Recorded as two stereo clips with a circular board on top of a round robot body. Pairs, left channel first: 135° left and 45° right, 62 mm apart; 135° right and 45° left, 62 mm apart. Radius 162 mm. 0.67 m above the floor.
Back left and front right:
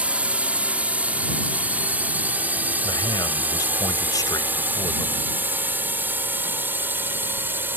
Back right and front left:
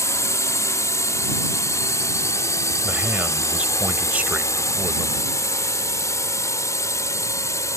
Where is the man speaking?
115° left.